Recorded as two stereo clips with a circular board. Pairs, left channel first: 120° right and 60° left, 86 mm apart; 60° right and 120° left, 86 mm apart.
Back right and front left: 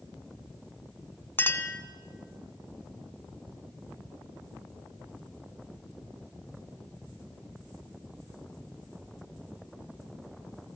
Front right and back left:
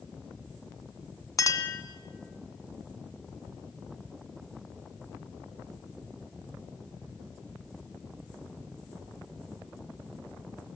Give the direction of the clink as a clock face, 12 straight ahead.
2 o'clock.